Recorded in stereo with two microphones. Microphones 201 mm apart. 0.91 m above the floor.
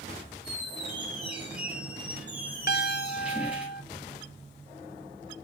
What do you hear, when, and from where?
0.4 s a squeak: 5° right (ahead or behind), 4 m
2.7 s a piano: 55° left (ahead or behind), 0.9 m